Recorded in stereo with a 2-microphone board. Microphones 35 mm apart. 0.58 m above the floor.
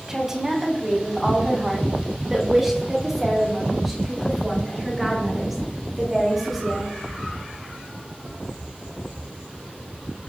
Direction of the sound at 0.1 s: 15° right (ahead or behind).